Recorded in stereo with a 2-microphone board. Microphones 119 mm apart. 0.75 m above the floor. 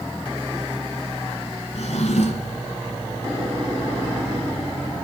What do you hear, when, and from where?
1.8 s a drawer: 75° left (ahead or behind), 2.0 m